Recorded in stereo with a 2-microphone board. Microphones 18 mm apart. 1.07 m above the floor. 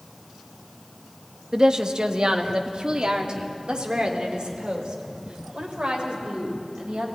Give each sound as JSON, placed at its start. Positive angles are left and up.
{"t": 1.5, "sound": "a woman speaking", "side_deg": -45, "distance_m": 1.4}